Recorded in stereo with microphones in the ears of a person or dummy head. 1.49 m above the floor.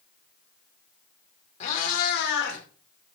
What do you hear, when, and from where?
1.6 s a cat meowing: 40° left (ahead or behind), 2.5 m; by 2.6 s 65° left (ahead or behind), 2.5 m